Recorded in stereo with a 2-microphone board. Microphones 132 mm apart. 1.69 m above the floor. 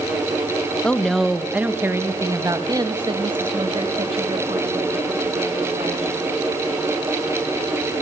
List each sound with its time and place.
0.8 s a woman speaking: 10° left (ahead or behind), 1.8 m; by 6.2 s 55° right (ahead or behind), 5 m